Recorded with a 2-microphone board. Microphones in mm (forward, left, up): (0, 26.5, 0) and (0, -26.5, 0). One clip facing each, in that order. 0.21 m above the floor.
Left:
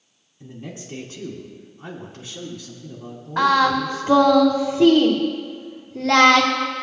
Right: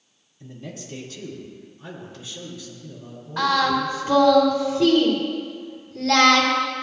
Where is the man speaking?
25° left (ahead or behind), 2.5 m; by 4.4 s 55° left (ahead or behind), 3 m.